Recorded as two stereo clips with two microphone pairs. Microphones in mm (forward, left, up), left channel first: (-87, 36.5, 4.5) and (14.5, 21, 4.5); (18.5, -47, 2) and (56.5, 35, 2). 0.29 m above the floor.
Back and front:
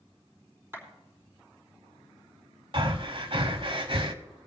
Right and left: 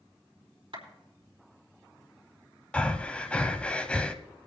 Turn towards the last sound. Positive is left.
turn(degrees=-40)